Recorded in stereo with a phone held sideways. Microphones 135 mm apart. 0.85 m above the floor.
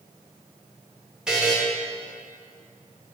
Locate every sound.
1.3 s a buzzer: 5° right (ahead or behind), 1.0 m